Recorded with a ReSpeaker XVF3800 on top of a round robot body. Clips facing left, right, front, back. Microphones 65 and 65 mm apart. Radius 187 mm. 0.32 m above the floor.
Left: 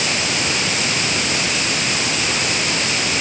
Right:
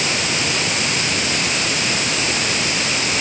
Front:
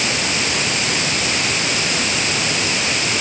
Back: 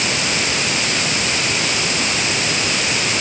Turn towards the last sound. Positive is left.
No sound to turn to.